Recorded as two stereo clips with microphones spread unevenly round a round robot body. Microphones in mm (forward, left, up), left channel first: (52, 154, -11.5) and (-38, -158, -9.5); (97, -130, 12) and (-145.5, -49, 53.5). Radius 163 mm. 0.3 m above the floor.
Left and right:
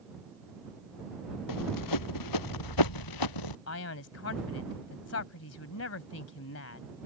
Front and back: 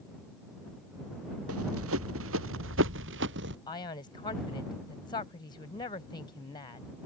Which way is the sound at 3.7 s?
45° left.